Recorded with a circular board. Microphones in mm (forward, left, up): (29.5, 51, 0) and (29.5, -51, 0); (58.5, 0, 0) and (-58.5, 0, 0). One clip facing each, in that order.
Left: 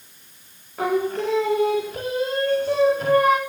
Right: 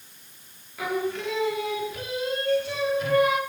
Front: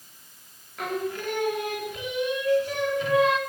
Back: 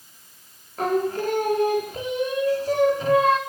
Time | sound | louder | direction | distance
0.8 | singing | left 6 dB, back 7 dB | 130° left | 3.5 m